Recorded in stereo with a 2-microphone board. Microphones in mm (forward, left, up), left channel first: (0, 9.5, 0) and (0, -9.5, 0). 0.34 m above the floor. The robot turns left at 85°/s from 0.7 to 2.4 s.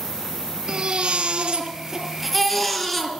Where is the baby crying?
50° right, 3 m; by 3.1 s 165° left, 3 m.